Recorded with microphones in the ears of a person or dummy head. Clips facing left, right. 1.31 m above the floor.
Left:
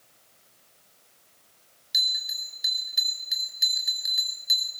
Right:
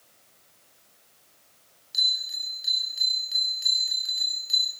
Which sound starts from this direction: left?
A bell, at 1.9 s.